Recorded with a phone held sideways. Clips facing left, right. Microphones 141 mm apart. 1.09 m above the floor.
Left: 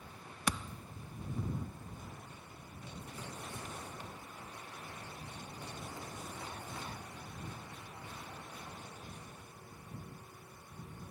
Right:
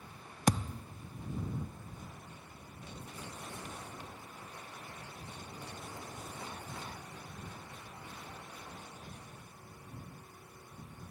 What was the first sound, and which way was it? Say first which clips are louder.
A thud: right 7 dB; 40° right (ahead or behind).